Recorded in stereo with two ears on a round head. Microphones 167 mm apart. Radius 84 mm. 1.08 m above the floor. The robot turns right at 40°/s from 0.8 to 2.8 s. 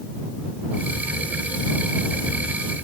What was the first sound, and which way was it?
Only background noise.